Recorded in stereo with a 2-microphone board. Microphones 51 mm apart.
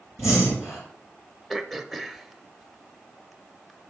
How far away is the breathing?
About 5.5 m.